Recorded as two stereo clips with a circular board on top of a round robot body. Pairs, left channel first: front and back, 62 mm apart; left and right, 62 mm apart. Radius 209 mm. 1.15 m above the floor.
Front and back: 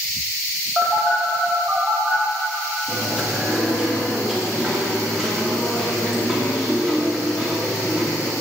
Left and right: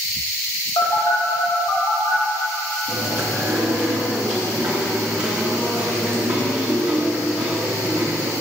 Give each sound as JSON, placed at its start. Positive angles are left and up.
{"t": 0.8, "sound": "a phone buzzing", "azimuth_deg": 110, "distance_m": 1.2}
{"t": 2.9, "sound": "chewing", "azimuth_deg": -90, "distance_m": 0.8}